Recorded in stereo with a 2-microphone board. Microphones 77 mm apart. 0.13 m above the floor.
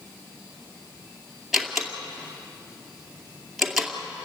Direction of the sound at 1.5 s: 5° right (ahead or behind).